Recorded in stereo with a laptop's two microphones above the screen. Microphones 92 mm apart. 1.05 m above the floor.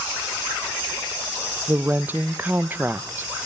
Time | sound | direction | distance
1.7 | a woman speaking | 20° right (ahead or behind) | 0.6 m